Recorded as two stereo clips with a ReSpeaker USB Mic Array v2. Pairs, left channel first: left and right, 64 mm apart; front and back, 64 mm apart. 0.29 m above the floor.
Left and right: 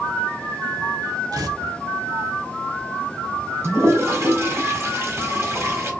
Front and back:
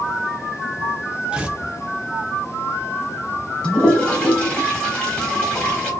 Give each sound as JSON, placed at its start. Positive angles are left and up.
{"t": 1.3, "sound": "tearing paper", "azimuth_deg": -105, "distance_m": 0.6}
{"t": 3.6, "sound": "a toilet flushing", "azimuth_deg": -65, "distance_m": 1.7}